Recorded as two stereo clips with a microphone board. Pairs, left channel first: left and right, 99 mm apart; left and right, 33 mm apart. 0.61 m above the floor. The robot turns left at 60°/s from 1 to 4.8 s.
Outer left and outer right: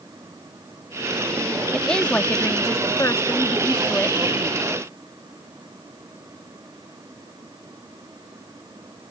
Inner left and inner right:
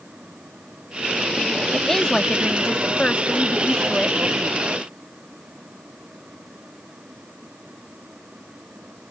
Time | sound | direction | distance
1.7 | a woman speaking | 5° left (ahead or behind) | ?